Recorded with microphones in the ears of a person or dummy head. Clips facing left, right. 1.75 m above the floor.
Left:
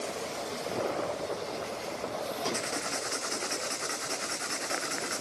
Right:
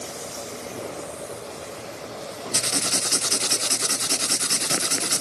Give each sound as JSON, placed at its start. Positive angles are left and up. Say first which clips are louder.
{"t": 2.5, "sound": "writing", "louder": "right 4 dB", "side_deg": -45, "distance_m": 0.6}